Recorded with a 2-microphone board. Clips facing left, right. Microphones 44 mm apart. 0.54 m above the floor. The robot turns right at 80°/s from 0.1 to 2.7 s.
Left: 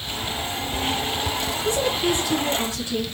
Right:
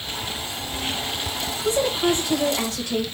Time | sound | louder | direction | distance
1.6 | a woman speaking | right 2 dB | 155° right | 2 m